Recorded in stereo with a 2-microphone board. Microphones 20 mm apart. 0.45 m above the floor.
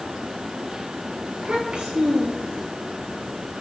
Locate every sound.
1.3 s a child speaking: 70° right (ahead or behind), 5.5 m